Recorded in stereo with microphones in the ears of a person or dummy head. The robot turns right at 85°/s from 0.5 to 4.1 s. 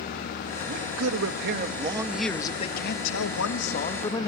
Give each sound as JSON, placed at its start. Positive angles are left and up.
{"t": 0.7, "sound": "a man speaking", "azimuth_deg": -125, "distance_m": 2.0}